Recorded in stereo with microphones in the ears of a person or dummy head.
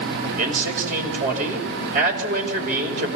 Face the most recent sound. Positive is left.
turn(degrees=-55)  # may be behind; listen again after turning